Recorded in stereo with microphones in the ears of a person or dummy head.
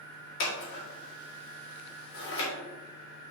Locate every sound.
0.4 s scissors: 55° left (ahead or behind), 2.0 m